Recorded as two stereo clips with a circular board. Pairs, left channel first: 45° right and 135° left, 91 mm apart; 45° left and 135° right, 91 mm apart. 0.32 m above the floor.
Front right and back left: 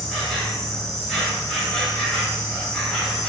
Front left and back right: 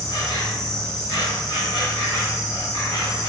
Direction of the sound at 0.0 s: 40° left.